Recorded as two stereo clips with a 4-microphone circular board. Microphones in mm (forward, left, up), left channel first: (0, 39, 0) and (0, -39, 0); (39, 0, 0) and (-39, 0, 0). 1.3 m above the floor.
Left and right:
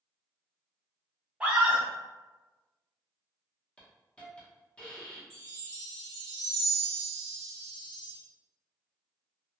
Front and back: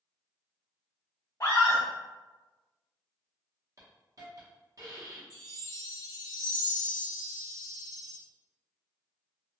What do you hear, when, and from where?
1.4 s a scream: 25° right, 0.7 m
3.8 s a hiss: 160° left, 0.8 m
5.3 s a chime: 170° left, 1.2 m